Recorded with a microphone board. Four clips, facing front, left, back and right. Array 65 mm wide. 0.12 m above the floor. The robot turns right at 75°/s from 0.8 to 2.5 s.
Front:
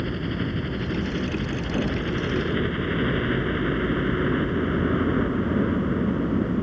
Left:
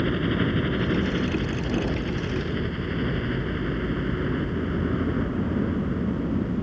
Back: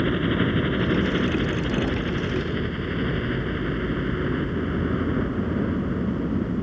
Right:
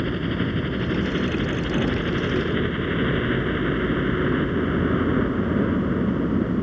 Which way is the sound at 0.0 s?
170° left.